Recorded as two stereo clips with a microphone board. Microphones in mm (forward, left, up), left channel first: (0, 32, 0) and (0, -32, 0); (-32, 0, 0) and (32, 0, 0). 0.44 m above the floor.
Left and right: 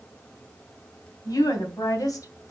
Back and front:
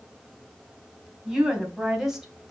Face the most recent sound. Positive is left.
turn(degrees=85)